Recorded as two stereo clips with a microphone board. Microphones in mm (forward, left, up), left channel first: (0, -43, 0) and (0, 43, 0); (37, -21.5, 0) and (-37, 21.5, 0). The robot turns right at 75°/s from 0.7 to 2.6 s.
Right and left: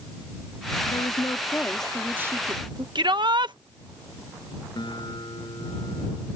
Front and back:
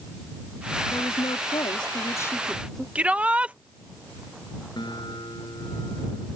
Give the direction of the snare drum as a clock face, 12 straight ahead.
I don't hear a snare drum.